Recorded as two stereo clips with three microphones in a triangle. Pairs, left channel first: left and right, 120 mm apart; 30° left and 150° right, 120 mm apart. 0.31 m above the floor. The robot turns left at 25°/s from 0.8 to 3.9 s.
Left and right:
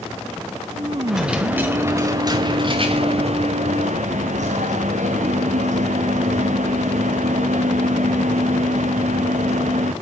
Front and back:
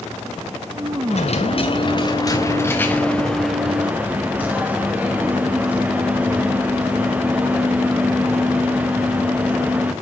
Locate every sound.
1.1 s a dropped coin: straight ahead, 2.5 m; by 9.9 s 70° right, 2.5 m